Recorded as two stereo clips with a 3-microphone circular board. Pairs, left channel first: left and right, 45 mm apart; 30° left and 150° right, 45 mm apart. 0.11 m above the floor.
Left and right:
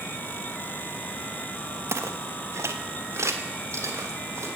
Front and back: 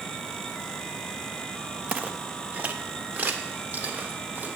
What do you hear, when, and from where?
1.9 s footsteps: 90° right, 0.6 m; by 4.5 s 105° right, 2 m